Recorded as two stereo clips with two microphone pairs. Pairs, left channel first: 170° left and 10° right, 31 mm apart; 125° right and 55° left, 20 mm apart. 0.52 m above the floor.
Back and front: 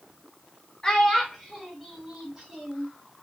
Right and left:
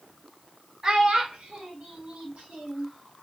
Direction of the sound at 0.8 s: 105° left.